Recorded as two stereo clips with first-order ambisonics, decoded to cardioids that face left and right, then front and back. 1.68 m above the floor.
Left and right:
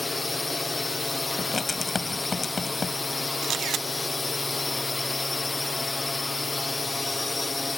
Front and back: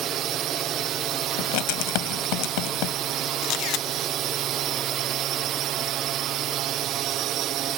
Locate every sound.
0.0 s a drone: 170° left
1.4 s writing: 15° left
3.4 s a camera shutter: 35° right